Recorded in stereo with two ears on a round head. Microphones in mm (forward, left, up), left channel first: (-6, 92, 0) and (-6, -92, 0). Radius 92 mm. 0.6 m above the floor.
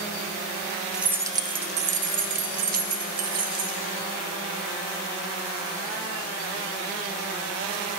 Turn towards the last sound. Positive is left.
turn(degrees=-40)  # may be behind; listen again after turning